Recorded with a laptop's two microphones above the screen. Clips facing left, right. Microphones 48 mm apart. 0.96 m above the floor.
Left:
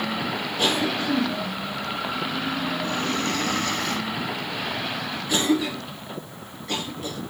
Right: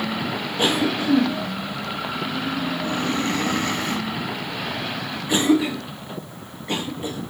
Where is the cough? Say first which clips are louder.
Right 3 dB; 30° right (ahead or behind), 1.2 m.